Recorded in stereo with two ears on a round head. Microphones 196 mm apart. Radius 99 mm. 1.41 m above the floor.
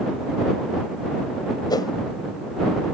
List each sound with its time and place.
1.7 s a whoosh: 20° left (ahead or behind)